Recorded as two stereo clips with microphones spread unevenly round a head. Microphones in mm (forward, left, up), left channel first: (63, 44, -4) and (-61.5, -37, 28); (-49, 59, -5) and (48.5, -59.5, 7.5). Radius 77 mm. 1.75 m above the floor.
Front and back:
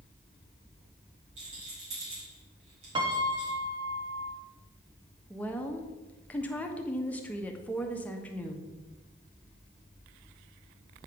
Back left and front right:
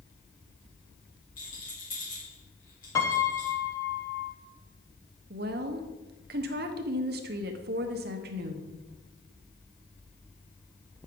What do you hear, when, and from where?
1.4 s a rattle: 170° left, 3.5 m
3.0 s a piano: 165° right, 0.9 m
5.3 s a woman speaking: 55° right, 0.9 m